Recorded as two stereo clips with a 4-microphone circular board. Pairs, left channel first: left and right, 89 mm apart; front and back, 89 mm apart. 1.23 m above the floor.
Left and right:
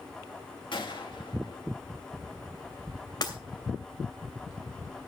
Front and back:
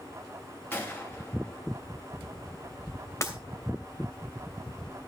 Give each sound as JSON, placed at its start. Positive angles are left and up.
{"t": 0.7, "sound": "a gunshot", "azimuth_deg": 65, "distance_m": 2.5}
{"t": 3.2, "sound": "breaking glass", "azimuth_deg": 55, "distance_m": 2.5}